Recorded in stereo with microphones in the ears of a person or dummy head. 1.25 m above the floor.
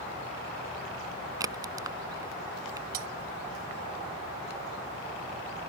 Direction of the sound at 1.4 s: 20° right (ahead or behind).